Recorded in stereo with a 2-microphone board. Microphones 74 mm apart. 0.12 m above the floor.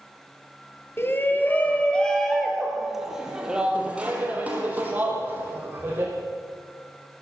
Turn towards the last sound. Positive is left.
turn(degrees=-30)  # may be behind; listen again after turning